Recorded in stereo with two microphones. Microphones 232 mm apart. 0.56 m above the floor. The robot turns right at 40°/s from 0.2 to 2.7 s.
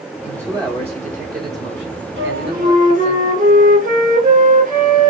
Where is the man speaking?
175° right, 1.0 m; by 3.2 s 75° right, 1.0 m.